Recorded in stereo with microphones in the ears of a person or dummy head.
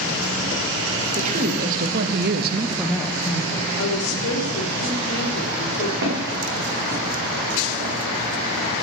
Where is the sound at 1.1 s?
40° right (ahead or behind), 2 m; by 3.7 s 20° left (ahead or behind), 1.5 m.